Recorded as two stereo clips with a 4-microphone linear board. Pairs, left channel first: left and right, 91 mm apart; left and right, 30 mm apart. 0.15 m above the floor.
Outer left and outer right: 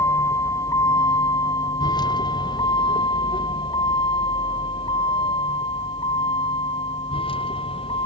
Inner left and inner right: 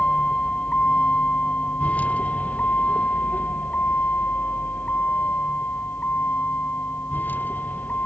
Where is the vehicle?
30° left (ahead or behind); by 8.1 s 70° left (ahead or behind).